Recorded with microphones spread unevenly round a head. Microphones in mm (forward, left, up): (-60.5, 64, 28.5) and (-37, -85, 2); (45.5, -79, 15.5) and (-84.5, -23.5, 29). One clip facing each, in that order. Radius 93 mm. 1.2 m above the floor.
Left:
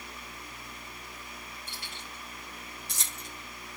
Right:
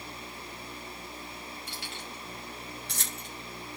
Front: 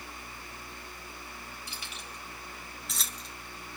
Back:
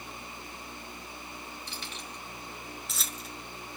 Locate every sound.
1.7 s keys jangling: 105° right, 5 m; by 3.3 s 120° right, 4.5 m